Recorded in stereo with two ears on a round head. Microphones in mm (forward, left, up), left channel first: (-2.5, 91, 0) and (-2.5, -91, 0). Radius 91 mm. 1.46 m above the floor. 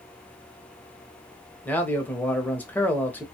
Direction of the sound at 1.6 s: 10° left (ahead or behind).